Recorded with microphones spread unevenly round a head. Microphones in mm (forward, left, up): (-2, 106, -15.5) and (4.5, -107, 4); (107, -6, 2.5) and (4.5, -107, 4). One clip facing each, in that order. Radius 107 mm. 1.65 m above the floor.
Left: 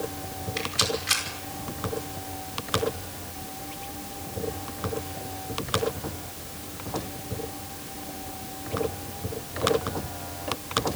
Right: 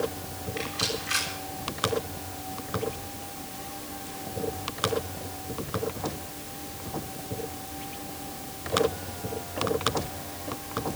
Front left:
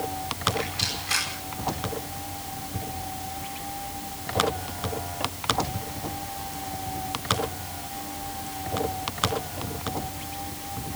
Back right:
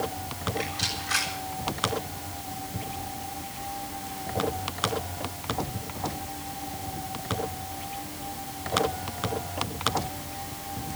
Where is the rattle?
130° left, 9.5 m.